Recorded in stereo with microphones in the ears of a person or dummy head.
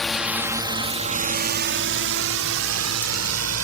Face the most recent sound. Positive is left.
turn(degrees=-80)